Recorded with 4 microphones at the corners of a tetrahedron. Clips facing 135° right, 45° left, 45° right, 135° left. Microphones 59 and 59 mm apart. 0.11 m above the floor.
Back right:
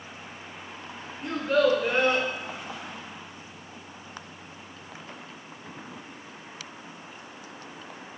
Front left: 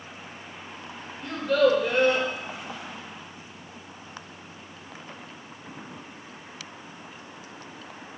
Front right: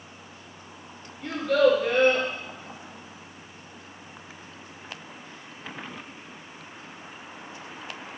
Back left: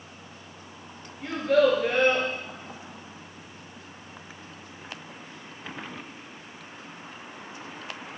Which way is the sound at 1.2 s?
Straight behind.